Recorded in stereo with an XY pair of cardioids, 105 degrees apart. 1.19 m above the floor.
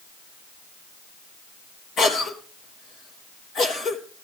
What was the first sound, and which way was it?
A cough, 65° left.